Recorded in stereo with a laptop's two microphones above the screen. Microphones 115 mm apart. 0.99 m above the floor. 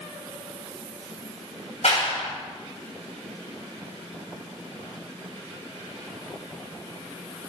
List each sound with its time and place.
1.8 s a clap: 70° left (ahead or behind), 6 m